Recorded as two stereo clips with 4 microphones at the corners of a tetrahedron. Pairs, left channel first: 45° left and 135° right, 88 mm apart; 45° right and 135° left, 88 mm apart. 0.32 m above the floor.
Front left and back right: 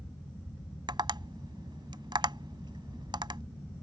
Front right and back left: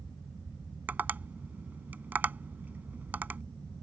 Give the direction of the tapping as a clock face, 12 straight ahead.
5 o'clock.